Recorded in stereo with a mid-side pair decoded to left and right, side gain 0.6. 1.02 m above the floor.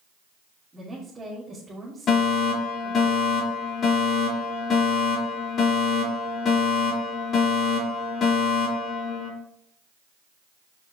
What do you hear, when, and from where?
0.7 s a woman speaking: 20° right, 2.5 m
2.1 s a fire alarm: 45° left, 4 m